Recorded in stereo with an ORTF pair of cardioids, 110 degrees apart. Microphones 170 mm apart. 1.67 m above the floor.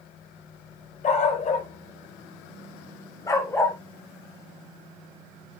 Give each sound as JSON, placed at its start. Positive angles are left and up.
{"t": 1.0, "sound": "a dog barking", "azimuth_deg": 50, "distance_m": 3.5}